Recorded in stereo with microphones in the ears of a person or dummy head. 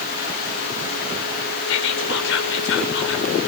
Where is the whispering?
75° left (ahead or behind), 5 m.